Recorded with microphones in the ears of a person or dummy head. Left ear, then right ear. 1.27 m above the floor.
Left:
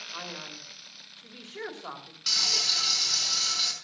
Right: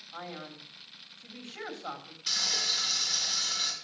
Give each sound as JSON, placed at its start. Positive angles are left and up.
{"t": 0.1, "sound": "a man speaking", "side_deg": 20, "distance_m": 2.5}
{"t": 2.3, "sound": "frying", "side_deg": 25, "distance_m": 4.5}